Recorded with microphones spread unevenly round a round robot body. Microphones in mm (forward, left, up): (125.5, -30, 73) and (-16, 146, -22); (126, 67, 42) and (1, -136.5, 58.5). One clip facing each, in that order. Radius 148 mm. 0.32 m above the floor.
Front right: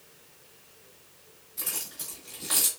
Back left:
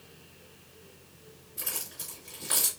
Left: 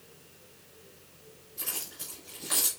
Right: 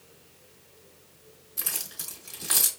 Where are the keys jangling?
140° right, 1.9 m.